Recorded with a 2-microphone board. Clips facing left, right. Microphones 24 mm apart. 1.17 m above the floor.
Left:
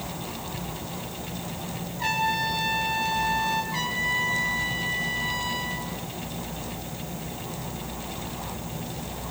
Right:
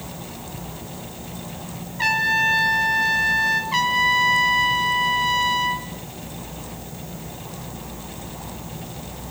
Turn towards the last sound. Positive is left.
turn(degrees=-65)  # may be behind; listen again after turning